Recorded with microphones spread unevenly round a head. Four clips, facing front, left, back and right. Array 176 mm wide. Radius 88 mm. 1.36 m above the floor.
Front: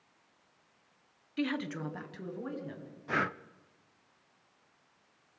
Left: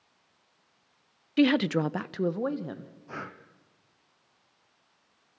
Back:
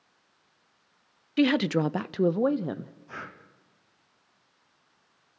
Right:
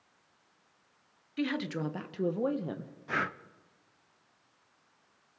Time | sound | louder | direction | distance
1.4 | a woman speaking | left 10 dB, back 11 dB | 125° left | 0.5 m
3.1 | breathing | right 7 dB, front 12 dB | 20° right | 0.7 m